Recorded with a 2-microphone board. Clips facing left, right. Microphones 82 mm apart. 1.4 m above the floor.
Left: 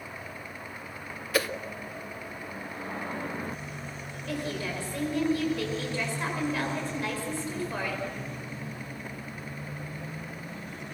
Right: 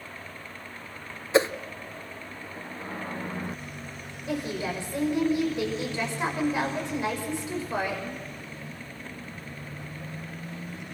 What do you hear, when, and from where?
1.3 s a whoosh: 25° right (ahead or behind), 0.5 m
4.3 s a woman speaking: 20° right (ahead or behind), 5.5 m